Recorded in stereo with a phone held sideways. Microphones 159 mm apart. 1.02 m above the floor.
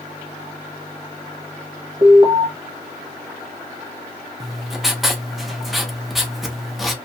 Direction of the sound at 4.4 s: Centre (ahead or behind).